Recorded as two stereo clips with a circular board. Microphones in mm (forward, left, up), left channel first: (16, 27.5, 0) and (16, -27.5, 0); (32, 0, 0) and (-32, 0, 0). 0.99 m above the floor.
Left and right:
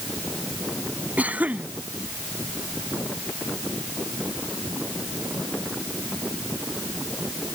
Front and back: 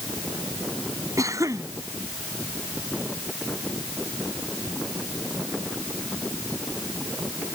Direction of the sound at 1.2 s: 150° right.